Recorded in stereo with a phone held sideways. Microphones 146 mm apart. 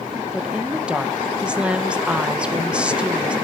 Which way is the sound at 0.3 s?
5° right (ahead or behind).